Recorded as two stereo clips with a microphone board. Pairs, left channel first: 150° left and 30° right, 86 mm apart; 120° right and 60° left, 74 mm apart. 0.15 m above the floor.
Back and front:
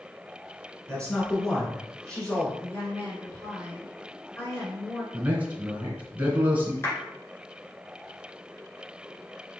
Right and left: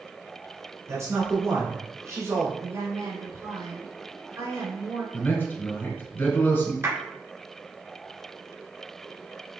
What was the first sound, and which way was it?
A man speaking, 80° left.